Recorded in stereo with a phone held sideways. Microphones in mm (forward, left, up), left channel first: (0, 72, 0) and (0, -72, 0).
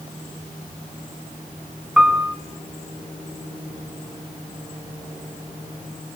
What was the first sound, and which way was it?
A piano, 5° right (ahead or behind).